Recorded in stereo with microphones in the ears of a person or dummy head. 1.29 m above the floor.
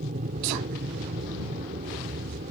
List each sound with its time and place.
0.0 s an aircraft: 40° right (ahead or behind)